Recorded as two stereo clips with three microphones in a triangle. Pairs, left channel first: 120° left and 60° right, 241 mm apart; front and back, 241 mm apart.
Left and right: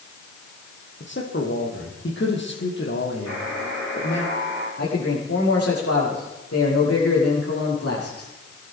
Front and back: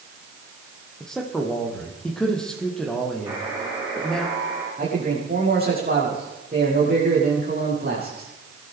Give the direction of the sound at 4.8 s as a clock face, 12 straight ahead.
8 o'clock.